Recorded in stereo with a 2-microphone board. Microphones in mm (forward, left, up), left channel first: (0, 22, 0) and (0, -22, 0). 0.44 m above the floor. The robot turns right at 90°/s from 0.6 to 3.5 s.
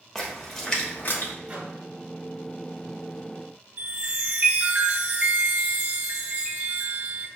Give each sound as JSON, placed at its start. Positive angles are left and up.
{"t": 0.1, "sound": "a splash", "side_deg": 10, "distance_m": 0.9}
{"t": 1.5, "sound": "a microwave", "side_deg": -35, "distance_m": 1.7}
{"t": 3.8, "sound": "a chime", "side_deg": -50, "distance_m": 1.5}